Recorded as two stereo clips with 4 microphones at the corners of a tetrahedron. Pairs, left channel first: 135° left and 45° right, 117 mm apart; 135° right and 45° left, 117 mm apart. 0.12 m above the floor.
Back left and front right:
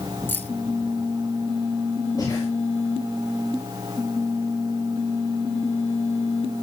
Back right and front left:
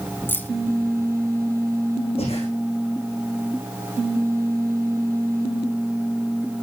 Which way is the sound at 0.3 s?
Straight behind.